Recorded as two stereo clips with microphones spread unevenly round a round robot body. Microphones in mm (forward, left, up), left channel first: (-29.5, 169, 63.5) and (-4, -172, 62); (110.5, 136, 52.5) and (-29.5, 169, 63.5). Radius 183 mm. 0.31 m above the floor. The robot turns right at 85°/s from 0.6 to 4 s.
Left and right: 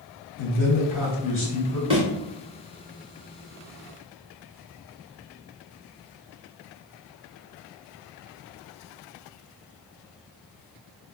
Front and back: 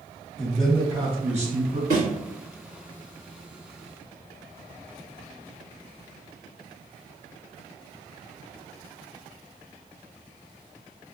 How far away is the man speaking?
About 1.9 m.